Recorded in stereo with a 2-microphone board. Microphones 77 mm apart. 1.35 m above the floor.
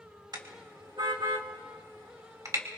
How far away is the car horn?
About 2 m.